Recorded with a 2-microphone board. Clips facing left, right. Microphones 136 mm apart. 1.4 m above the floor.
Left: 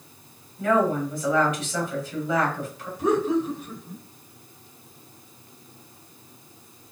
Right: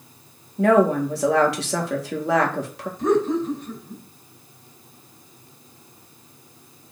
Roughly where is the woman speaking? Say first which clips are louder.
Right 5 dB; right.